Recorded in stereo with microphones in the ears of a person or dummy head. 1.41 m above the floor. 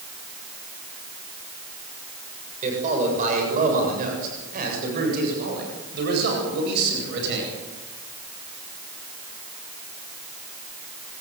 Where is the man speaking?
40° right (ahead or behind), 7 m; by 7.5 s 70° right (ahead or behind), 9.5 m.